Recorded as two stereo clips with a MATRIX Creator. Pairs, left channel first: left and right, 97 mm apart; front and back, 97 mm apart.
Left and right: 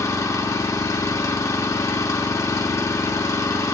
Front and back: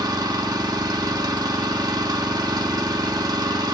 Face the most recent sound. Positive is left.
turn(degrees=140)